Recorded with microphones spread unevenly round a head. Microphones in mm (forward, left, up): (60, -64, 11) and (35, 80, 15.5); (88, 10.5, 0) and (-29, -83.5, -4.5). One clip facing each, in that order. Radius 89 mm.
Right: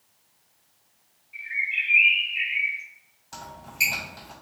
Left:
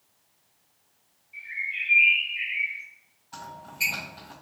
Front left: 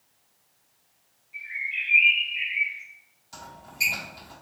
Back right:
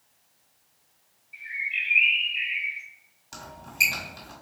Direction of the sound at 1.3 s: 120° right.